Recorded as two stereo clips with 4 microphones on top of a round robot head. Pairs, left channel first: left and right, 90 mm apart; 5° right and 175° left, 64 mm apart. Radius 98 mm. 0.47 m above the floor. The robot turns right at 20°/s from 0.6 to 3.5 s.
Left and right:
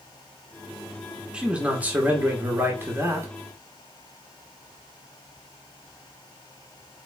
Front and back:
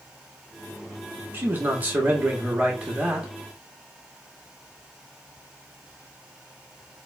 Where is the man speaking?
160° right, 0.9 m; by 3.3 s 120° right, 0.9 m.